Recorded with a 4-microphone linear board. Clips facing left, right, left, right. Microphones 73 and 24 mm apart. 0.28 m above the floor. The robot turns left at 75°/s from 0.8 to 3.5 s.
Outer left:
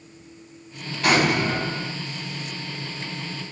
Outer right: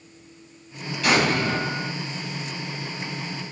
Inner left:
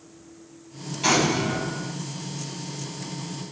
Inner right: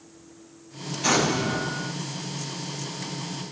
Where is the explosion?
50° left, 2 m; by 1.9 s 20° right, 2 m.